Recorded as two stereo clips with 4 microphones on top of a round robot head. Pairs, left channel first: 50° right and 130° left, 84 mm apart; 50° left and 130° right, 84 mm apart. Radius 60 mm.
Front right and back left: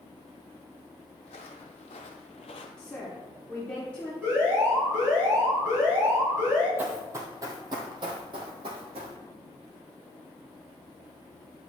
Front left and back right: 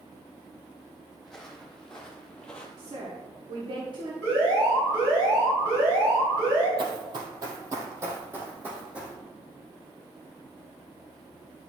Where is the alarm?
170° right, 4 m.